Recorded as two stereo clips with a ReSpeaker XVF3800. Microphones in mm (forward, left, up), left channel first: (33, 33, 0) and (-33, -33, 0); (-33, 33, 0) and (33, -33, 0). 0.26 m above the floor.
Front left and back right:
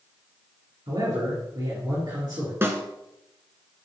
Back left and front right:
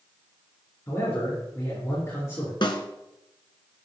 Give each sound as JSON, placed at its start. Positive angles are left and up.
{"t": 0.9, "sound": "a man speaking", "azimuth_deg": -170, "distance_m": 4.0}
{"t": 2.6, "sound": "a snare drum", "azimuth_deg": 160, "distance_m": 1.2}